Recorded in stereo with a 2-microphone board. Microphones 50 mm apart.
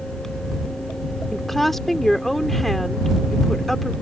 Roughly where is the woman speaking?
Centre.